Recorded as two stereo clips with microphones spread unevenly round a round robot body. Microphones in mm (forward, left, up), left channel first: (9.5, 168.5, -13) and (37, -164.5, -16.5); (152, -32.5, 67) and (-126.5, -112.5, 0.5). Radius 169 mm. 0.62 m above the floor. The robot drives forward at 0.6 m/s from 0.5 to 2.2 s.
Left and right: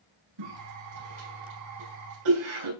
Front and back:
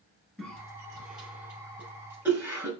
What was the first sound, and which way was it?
A cough, 75° right.